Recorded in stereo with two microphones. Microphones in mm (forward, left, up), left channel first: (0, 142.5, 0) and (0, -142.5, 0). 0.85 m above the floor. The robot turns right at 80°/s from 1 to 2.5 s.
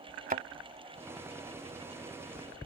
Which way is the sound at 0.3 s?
30° right (ahead or behind).